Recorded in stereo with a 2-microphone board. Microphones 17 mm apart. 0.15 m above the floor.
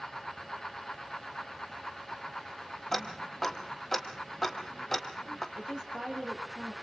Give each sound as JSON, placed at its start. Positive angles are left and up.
{"t": 2.9, "sound": "ticking", "side_deg": 15, "distance_m": 1.9}
{"t": 5.5, "sound": "a woman speaking", "side_deg": -45, "distance_m": 4.0}